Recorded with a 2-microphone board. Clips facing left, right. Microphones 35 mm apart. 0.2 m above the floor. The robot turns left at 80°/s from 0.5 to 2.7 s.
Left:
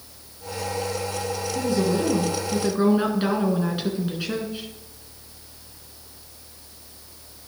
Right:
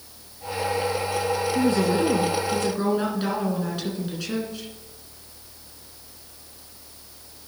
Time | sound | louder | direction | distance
1.6 | a woman speaking | even | 110° right | 2.5 m